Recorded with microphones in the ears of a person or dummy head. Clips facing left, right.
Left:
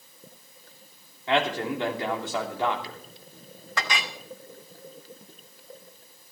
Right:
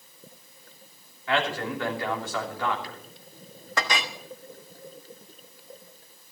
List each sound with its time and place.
1.3 s a man speaking: 20° left (ahead or behind), 3 m
3.8 s a clink: 40° right (ahead or behind), 1.2 m